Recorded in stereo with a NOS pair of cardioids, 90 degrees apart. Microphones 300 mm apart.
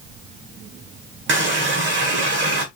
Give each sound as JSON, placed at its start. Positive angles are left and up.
{"t": 1.3, "sound": "a running tap", "azimuth_deg": -40, "distance_m": 1.0}